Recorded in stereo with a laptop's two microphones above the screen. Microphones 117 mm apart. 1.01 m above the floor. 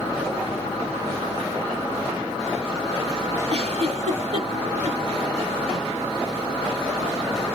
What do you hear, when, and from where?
3.5 s a giggle: 60° right (ahead or behind), 1.5 m